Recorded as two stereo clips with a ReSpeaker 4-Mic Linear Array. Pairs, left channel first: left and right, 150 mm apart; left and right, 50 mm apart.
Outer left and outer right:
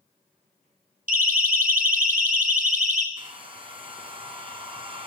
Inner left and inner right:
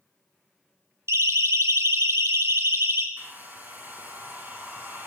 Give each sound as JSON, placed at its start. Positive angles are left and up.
{"t": 1.1, "sound": "a siren", "side_deg": -70, "distance_m": 3.0}
{"t": 3.2, "sound": "a hair dryer", "side_deg": -35, "distance_m": 6.0}